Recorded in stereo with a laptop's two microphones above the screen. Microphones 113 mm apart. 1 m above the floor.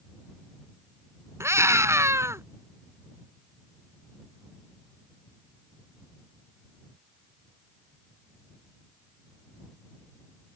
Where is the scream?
25° right (ahead or behind).